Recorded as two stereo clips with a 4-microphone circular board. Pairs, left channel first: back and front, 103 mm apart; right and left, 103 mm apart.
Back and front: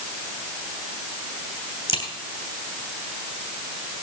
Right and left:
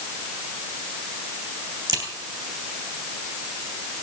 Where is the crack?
145° left, 2.5 m.